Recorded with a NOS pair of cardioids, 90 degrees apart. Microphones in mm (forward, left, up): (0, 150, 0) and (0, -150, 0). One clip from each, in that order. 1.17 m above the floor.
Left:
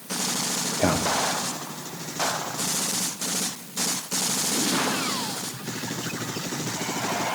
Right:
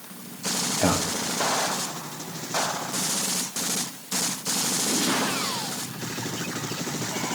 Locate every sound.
0.8 s a man speaking: 10° left, 1.4 m